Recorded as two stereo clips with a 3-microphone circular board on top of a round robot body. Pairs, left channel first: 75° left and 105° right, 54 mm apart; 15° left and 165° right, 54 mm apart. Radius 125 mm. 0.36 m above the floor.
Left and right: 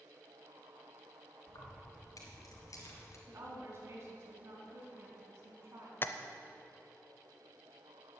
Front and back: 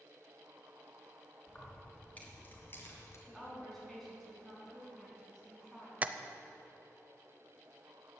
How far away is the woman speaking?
About 5 m.